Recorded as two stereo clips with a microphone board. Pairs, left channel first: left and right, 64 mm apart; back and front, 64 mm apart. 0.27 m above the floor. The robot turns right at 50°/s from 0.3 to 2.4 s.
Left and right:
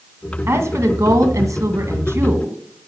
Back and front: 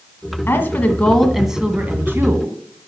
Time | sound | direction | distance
0.5 | a woman speaking | 135° right | 2.0 m